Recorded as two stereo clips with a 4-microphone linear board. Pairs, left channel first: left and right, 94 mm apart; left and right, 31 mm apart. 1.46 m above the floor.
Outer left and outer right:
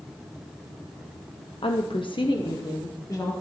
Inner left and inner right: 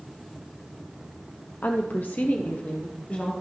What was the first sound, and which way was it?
A woman speaking, 70° left (ahead or behind).